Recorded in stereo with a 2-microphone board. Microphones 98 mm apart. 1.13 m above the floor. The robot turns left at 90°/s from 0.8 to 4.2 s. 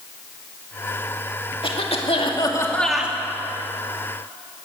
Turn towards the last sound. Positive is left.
turn(degrees=-115)